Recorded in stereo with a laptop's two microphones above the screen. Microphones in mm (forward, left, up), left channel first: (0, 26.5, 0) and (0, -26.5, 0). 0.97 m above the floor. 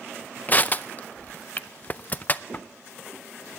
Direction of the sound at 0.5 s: 35° left (ahead or behind).